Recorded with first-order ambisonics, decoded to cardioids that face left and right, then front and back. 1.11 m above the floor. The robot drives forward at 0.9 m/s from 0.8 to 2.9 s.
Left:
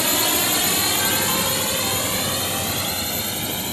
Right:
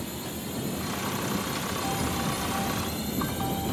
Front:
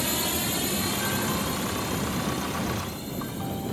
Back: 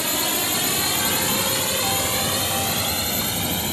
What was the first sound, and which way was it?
A drone, 105° left.